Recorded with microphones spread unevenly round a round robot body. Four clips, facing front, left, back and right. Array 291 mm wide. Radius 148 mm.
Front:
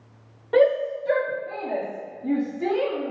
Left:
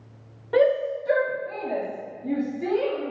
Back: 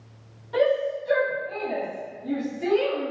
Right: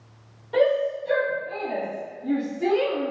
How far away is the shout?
About 2.0 m.